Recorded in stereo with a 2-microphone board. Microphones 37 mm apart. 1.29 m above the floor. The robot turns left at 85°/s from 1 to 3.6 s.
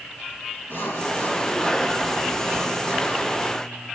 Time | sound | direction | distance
0.7 | sawing | 75° left | 3.5 m